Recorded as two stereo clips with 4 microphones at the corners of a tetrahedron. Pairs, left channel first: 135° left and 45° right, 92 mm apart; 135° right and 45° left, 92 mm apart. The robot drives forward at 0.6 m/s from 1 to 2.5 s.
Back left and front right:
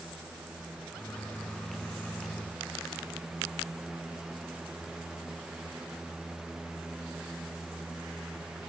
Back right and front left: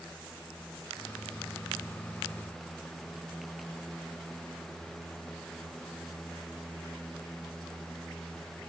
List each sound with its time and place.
Only background noise.